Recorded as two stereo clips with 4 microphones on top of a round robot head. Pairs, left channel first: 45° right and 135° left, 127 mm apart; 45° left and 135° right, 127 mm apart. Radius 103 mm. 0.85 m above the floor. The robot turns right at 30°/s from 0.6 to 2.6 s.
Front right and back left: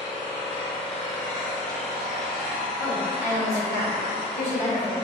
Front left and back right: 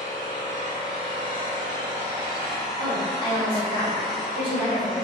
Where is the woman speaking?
165° right, 2.0 m.